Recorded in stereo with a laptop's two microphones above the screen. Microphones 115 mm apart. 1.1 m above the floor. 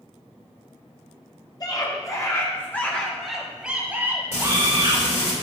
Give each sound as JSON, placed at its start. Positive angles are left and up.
{"t": 1.6, "sound": "a scream", "side_deg": 35, "distance_m": 1.6}
{"t": 4.3, "sound": "frying", "side_deg": 75, "distance_m": 1.8}